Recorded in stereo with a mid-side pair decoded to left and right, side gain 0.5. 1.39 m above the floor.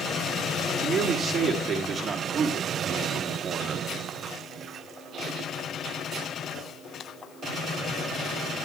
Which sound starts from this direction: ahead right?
A man speaking, at 0.8 s.